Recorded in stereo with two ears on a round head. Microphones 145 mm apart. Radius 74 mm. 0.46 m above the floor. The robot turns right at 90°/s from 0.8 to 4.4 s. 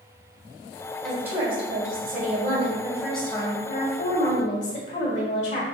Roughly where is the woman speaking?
Behind.